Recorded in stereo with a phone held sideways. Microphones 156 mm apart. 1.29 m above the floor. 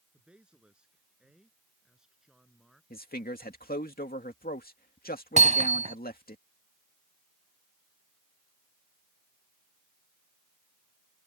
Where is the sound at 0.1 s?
5° right (ahead or behind).